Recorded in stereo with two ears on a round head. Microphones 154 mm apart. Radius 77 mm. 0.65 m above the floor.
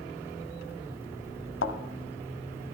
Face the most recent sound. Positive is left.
turn(degrees=80)